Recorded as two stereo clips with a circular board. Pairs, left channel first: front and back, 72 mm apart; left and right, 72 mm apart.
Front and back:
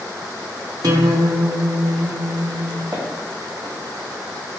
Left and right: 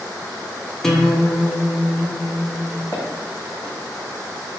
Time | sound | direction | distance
0.8 | a guitar | 175° left | 0.6 m
2.9 | footsteps | 145° left | 1.8 m